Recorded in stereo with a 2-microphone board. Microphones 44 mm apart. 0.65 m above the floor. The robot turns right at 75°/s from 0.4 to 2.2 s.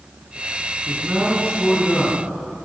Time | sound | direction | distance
0.9 | a man speaking | 60° right | 5 m